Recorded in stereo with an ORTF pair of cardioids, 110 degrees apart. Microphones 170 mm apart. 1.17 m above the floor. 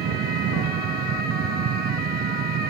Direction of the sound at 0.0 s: 65° right.